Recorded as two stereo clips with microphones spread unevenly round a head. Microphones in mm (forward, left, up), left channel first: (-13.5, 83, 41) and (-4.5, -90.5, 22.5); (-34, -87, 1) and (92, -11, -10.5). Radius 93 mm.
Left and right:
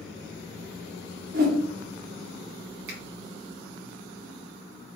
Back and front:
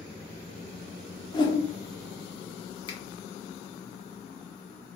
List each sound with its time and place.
1.3 s a whoosh: 105° right, 0.8 m
2.9 s a finger snap: 90° right, 1.5 m